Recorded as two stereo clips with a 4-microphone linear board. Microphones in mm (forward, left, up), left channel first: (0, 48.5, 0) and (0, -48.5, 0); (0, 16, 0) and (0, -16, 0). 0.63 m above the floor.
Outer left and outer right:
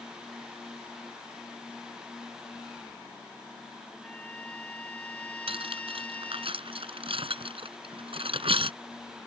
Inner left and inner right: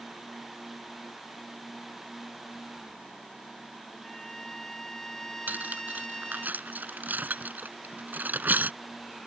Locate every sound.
4.0 s a trumpet: 15° left (ahead or behind)
5.5 s cutlery clinking: 70° right (ahead or behind)